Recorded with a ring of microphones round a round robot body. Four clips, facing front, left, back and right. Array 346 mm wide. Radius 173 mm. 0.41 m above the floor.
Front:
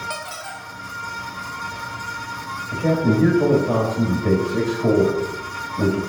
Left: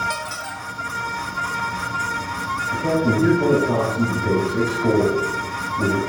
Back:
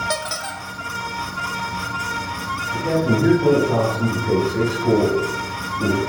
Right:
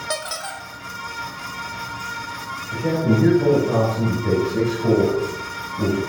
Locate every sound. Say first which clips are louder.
0.1 s a squeak: even, back 5 dB; 150° right, 0.9 m
2.7 s a man speaking: even, front 1 dB; straight ahead, 2.5 m